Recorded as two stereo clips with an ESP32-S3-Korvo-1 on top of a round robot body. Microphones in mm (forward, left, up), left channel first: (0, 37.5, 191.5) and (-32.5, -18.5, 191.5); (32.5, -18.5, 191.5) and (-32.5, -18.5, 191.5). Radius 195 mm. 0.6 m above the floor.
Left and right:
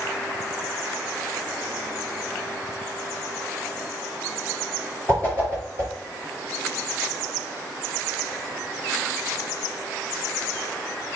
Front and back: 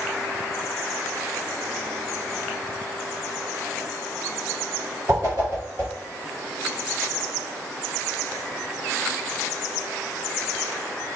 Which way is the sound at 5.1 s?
130° left.